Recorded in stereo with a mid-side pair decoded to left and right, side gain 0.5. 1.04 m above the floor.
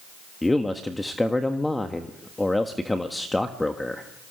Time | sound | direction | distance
0.4 | a man speaking | 10° left | 1.4 m